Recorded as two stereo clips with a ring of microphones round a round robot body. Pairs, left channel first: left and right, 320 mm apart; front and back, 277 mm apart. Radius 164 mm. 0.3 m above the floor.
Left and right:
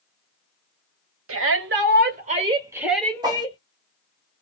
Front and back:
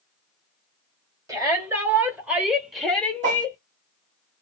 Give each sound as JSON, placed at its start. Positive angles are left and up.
{"t": 1.3, "sound": "a shout", "azimuth_deg": -105, "distance_m": 2.0}
{"t": 3.2, "sound": "a whoosh", "azimuth_deg": -155, "distance_m": 1.1}